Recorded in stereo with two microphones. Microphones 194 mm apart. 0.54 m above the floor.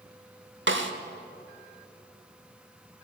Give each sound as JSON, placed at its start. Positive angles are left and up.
{"t": 0.7, "sound": "a snare drum", "side_deg": -75, "distance_m": 0.9}